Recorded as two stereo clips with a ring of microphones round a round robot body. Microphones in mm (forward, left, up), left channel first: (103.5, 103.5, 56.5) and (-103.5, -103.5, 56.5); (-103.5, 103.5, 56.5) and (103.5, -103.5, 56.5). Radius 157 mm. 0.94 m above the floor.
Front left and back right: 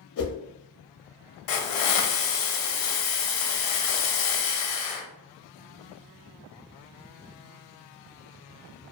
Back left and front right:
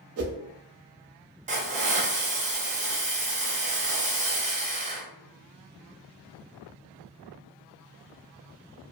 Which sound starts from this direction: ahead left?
A hiss, at 1.5 s.